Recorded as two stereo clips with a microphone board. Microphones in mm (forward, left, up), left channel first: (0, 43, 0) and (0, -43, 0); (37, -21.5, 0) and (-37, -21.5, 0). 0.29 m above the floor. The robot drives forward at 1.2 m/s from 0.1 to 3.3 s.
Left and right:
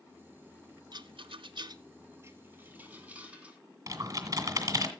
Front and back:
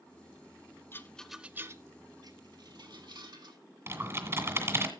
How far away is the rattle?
About 0.8 m.